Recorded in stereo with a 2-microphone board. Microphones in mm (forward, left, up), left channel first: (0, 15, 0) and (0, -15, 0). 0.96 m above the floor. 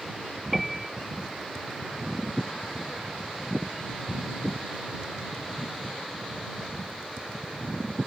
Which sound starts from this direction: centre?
A piano, at 0.5 s.